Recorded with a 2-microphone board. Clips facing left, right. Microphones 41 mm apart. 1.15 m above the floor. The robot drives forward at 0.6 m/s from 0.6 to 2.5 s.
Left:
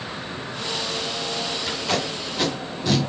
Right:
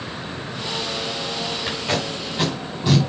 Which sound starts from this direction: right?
Tape being pulled, at 1.7 s.